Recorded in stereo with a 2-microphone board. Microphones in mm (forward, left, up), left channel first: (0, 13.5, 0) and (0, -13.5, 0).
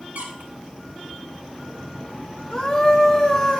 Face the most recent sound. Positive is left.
turn(degrees=25)  # may be behind; listen again after turning